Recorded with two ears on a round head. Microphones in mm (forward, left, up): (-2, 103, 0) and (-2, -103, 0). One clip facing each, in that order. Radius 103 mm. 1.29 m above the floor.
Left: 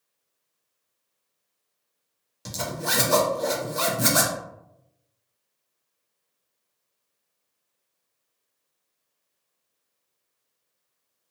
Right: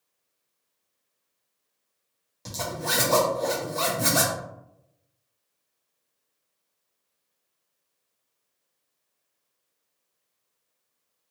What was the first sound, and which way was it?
A zipper, 15° left (ahead or behind).